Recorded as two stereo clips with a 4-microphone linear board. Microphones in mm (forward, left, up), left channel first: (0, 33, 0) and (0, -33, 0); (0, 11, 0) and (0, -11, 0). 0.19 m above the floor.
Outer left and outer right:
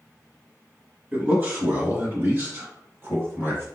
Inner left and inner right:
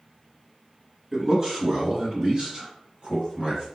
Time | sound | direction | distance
1.1 | a man speaking | 25° right (ahead or behind) | 1.5 m